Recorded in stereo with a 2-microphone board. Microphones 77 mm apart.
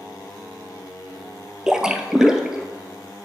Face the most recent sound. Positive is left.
turn(degrees=-10)  # may be behind; listen again after turning